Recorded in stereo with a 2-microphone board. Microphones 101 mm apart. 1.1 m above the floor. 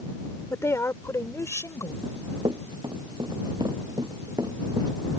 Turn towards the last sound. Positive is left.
turn(degrees=-40)  # may be behind; listen again after turning